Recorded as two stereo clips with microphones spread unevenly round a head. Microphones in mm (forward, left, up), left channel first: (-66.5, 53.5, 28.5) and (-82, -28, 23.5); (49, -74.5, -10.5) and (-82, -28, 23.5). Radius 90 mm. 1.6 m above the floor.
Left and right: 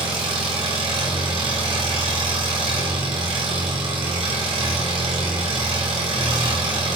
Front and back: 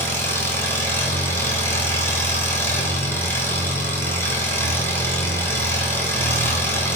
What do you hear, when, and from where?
0.0 s an engine running: 95° right, 3 m